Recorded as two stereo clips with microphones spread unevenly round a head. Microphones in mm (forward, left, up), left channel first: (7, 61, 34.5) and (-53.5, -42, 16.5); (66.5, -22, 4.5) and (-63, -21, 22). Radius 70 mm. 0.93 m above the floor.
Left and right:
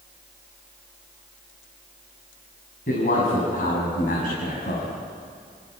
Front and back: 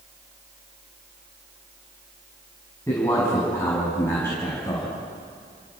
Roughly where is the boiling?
No boiling in this recording.